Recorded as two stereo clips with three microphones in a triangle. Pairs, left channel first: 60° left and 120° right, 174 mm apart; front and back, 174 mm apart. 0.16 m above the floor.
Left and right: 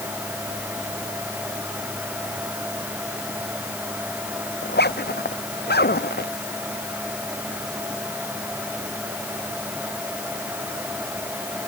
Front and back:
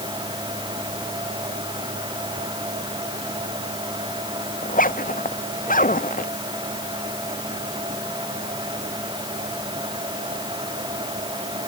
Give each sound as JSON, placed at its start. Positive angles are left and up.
{"t": 4.6, "sound": "a zipper", "azimuth_deg": 40}